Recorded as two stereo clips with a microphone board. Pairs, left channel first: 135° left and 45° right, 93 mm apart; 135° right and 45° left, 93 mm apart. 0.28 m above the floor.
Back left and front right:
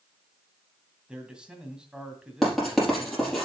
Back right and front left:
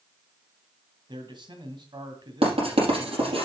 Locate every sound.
1.1 s a man speaking: 35° left, 2 m
2.4 s writing: 45° left, 4.5 m